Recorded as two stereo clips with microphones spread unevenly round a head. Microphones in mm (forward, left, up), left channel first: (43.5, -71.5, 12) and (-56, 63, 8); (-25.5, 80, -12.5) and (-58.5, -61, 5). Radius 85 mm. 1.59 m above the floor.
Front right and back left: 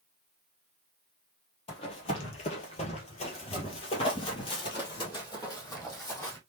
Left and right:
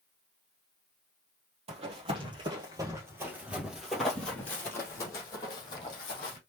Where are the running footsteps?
95° right, 2 m; by 6.4 s 20° left, 3 m.